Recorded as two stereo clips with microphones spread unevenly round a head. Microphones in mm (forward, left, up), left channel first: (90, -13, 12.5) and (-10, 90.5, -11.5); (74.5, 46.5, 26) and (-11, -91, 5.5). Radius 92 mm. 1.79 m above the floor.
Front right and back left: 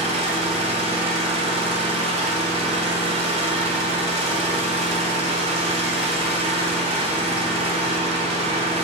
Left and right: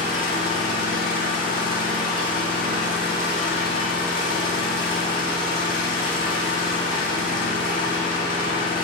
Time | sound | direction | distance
0.0 | an engine running | 90° left | 2 m